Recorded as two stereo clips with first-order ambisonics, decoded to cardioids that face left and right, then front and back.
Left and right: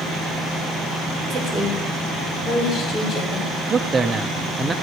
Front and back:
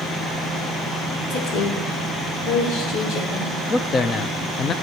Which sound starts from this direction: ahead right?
A man speaking, at 3.7 s.